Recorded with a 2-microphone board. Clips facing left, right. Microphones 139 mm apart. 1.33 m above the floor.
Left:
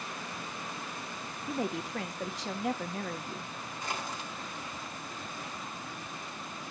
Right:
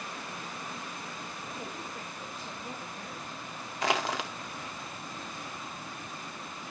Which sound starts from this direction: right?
Crushing, at 3.8 s.